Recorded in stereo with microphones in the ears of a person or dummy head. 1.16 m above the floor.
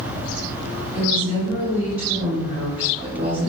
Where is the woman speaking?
35° right (ahead or behind), 2.5 m.